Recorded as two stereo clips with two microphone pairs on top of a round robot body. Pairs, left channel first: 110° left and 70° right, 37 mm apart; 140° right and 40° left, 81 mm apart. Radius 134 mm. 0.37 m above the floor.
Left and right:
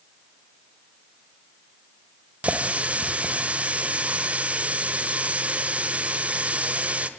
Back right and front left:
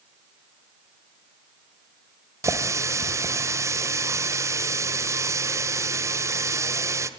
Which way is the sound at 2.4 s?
15° right.